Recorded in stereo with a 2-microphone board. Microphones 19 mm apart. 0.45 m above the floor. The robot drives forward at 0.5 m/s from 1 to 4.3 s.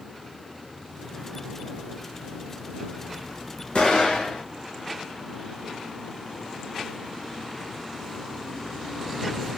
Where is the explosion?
50° left (ahead or behind), 1.9 m; by 4.4 s 45° left (ahead or behind), 2 m.